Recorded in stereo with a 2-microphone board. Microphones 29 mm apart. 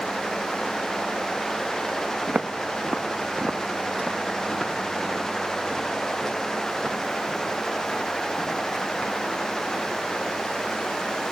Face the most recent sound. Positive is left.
turn(degrees=15)  # may be behind; listen again after turning